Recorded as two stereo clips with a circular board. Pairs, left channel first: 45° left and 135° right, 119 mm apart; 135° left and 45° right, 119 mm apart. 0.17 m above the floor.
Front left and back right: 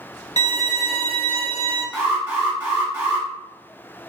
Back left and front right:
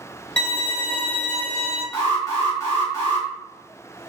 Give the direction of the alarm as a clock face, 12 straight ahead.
6 o'clock.